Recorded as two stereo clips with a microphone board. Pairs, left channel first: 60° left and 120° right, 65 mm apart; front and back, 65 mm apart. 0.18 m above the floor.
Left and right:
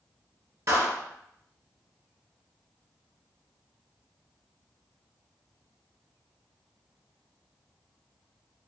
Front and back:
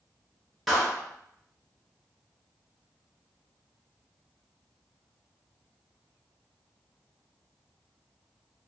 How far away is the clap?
About 2 m.